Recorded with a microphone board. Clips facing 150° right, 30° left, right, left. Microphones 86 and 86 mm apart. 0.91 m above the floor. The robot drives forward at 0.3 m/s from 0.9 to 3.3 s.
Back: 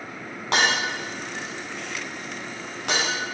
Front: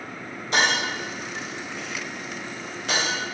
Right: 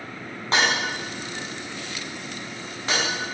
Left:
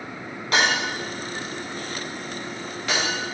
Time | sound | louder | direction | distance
0.5 | breaking glass | even, left 1 dB | 150° right | 5 m